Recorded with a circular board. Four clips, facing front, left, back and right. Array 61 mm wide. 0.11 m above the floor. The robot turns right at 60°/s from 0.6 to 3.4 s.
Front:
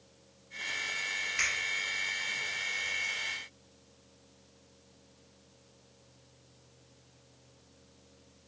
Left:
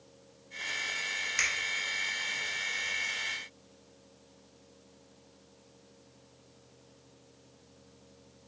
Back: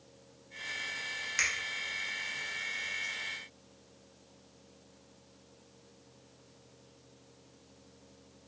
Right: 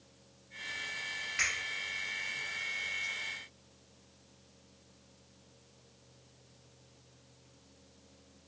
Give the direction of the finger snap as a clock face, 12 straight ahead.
8 o'clock.